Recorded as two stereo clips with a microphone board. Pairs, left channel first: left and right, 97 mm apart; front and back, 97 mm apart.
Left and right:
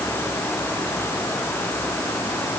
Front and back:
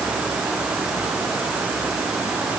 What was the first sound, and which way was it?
Only background noise.